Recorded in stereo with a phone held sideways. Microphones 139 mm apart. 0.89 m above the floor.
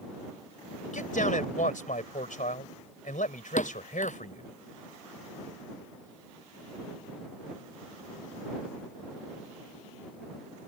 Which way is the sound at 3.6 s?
70° left (ahead or behind).